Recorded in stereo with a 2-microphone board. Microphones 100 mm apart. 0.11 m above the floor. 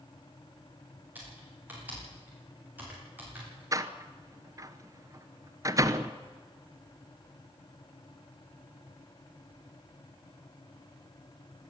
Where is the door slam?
35° right (ahead or behind), 1.0 m.